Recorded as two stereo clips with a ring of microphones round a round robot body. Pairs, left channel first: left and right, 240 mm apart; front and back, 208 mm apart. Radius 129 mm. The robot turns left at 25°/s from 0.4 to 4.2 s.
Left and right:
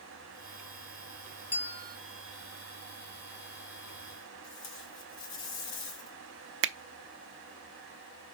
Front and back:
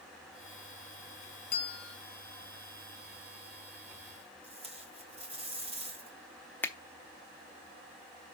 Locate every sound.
1.5 s a bell: 30° left, 0.8 m; by 2.0 s 20° left, 0.8 m
4.4 s tape being pulled: 120° left, 2.5 m
6.6 s a finger snap: 75° right, 0.6 m